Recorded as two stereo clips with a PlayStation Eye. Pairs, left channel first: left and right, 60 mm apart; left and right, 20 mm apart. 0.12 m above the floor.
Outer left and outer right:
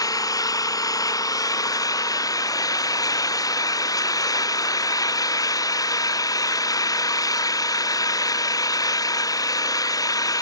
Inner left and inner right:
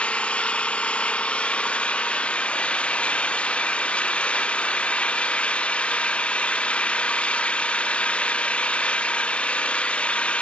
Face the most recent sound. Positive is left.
turn(degrees=90)